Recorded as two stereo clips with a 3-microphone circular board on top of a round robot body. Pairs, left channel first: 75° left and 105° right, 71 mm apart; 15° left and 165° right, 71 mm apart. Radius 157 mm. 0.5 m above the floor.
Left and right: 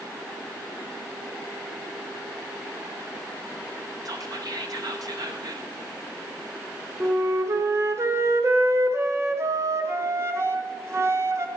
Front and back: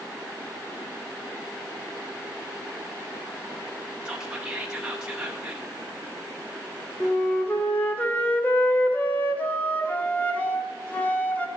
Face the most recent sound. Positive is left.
turn(degrees=-55)